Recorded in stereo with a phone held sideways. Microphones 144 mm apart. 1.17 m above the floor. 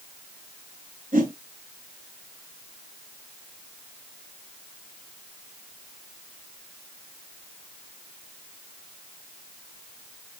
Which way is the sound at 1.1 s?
70° right (ahead or behind).